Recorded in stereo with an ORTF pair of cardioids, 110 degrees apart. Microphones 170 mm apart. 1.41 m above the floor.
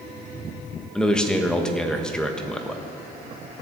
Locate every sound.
0.9 s a man speaking: 5° left, 1.4 m